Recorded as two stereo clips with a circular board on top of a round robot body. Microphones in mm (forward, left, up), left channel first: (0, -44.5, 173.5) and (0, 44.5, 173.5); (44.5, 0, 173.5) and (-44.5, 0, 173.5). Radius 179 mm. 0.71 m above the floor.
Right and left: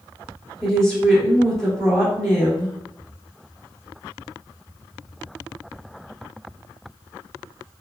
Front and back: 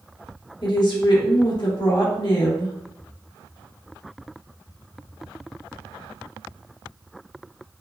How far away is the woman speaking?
About 1.6 m.